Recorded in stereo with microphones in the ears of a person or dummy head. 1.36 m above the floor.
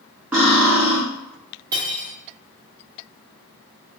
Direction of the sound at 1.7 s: 20° right (ahead or behind).